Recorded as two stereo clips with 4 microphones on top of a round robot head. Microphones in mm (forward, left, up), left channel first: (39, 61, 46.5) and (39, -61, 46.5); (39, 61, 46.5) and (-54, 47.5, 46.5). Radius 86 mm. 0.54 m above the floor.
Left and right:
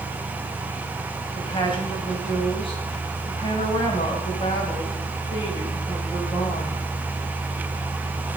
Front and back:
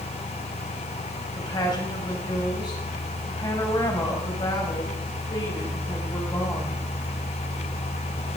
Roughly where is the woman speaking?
Ahead left.